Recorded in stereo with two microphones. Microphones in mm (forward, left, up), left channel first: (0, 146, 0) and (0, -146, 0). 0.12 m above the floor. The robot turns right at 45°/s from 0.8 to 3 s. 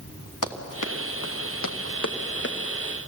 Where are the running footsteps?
80° left, 2.5 m; by 2.6 s 35° left (ahead or behind), 1.8 m.